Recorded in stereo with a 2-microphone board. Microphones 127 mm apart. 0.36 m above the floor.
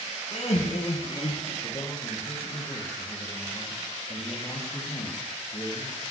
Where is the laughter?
65° left (ahead or behind), 4 m.